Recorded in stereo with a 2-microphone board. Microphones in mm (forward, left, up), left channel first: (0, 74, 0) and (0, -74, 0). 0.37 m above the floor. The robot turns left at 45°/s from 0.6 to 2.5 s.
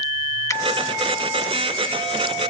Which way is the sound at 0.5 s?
20° left (ahead or behind).